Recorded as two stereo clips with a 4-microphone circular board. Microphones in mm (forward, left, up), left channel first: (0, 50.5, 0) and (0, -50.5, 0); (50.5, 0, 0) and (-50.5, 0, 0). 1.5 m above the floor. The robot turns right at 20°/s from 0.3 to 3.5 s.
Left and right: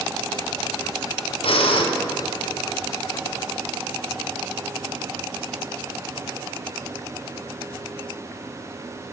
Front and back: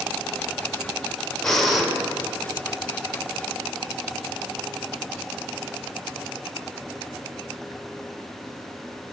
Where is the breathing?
85° left, 0.5 m; by 1.9 s 95° left, 0.5 m.